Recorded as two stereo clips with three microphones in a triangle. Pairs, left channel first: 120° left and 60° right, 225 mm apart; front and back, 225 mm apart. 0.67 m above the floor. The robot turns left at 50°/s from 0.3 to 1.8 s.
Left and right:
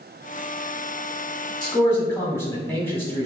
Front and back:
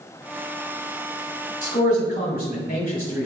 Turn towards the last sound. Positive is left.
turn(degrees=40)